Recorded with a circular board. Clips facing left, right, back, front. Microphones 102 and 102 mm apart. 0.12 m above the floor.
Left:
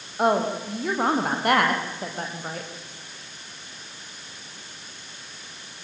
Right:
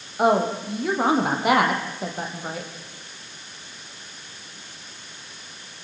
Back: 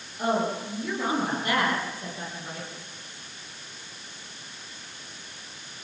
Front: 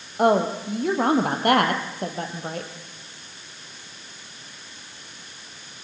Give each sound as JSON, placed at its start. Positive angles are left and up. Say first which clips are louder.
{"t": 0.2, "sound": "a woman speaking", "louder": "right 2 dB, front 7 dB", "azimuth_deg": -5, "distance_m": 4.0}